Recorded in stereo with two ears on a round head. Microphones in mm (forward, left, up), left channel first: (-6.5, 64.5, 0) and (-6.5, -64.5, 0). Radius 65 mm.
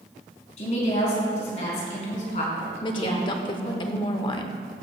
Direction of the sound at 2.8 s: 35° left (ahead or behind).